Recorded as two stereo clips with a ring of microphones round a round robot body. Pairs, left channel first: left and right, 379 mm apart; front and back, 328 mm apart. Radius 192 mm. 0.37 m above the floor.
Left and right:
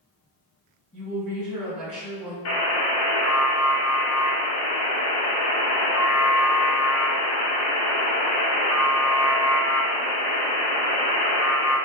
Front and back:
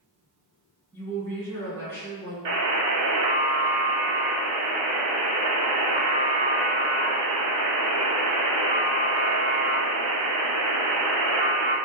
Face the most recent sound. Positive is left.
turn(degrees=140)